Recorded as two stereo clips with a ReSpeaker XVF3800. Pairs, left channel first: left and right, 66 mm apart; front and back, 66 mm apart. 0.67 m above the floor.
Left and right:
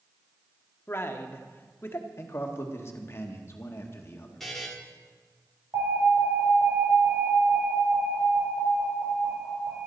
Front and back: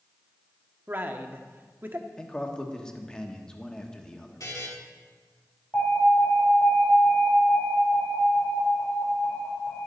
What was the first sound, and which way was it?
A man speaking, 130° left.